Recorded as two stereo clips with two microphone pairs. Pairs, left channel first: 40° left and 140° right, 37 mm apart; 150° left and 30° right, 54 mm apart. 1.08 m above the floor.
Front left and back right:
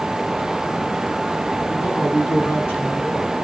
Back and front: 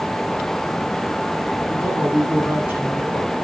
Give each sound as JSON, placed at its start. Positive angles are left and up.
{"t": 1.7, "sound": "a woman speaking", "azimuth_deg": 30, "distance_m": 8.5}